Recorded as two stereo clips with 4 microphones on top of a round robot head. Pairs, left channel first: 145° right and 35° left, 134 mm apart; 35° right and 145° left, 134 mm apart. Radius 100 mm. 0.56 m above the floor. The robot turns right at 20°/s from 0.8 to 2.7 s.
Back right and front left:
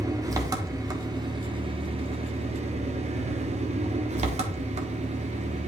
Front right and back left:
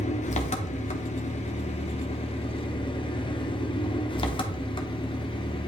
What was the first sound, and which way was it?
An engine running, 30° right.